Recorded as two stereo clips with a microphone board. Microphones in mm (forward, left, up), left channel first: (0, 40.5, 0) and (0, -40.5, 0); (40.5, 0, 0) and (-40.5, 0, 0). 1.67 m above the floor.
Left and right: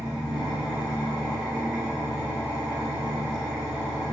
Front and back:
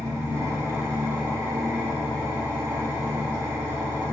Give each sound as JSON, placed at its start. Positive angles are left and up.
{"t": 0.0, "sound": "an engine running", "azimuth_deg": -165, "distance_m": 1.3}